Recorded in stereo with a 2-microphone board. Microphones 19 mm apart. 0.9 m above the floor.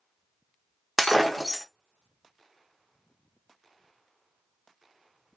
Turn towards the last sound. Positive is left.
turn(degrees=-5)  # may be behind; listen again after turning